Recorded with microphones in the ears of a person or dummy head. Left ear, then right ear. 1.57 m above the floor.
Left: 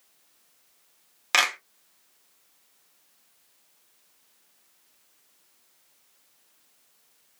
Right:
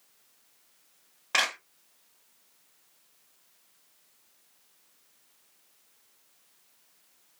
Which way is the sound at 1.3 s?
80° left.